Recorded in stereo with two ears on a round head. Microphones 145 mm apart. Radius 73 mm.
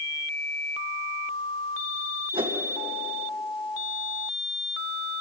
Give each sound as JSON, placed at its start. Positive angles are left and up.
{"t": 2.3, "sound": "a whoosh", "side_deg": -35, "distance_m": 2.5}